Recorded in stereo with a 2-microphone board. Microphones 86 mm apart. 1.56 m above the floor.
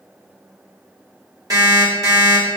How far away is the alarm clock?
About 1.5 m.